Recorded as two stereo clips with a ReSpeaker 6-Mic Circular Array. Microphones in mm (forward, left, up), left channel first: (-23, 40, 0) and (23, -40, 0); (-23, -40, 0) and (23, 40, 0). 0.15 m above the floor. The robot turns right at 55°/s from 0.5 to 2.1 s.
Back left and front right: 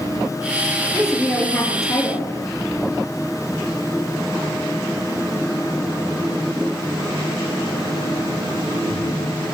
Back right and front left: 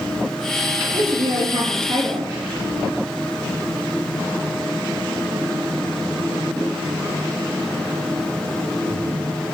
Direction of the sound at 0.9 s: 20° left.